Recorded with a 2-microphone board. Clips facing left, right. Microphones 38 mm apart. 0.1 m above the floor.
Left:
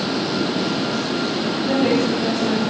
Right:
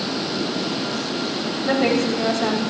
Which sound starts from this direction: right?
A woman speaking, at 1.6 s.